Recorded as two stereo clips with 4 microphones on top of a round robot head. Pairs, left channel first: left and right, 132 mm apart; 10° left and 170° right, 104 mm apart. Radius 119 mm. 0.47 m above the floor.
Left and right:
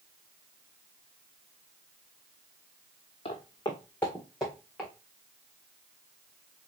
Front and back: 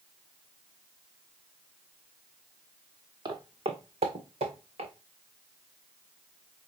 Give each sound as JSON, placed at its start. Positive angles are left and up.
{"t": 3.2, "sound": "footsteps", "azimuth_deg": 145, "distance_m": 1.2}